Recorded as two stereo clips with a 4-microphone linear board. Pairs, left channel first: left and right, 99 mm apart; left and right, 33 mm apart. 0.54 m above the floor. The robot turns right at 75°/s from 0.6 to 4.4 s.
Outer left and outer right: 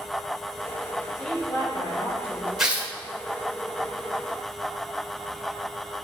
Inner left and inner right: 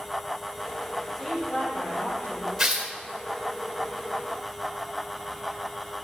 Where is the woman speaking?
Straight ahead, 3 m; by 2.5 s 100° left, 3 m.